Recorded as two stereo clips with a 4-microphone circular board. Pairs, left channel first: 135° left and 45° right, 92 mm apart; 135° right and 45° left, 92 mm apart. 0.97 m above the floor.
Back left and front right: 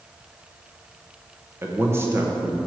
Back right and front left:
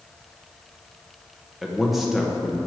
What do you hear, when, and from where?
1.6 s a man speaking: 40° right, 0.9 m